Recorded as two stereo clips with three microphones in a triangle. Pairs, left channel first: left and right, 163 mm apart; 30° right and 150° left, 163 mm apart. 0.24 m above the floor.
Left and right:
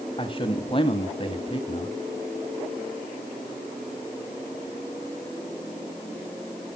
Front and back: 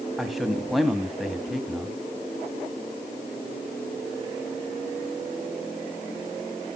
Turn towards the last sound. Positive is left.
turn(degrees=60)